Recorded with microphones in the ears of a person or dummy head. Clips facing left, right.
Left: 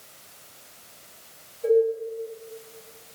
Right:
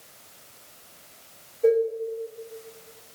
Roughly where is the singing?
I don't hear singing.